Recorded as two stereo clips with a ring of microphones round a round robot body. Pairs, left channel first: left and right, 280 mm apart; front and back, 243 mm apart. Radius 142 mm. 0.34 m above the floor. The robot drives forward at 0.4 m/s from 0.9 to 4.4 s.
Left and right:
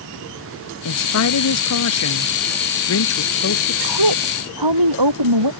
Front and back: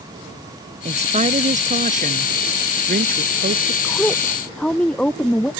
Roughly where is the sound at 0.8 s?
Behind left.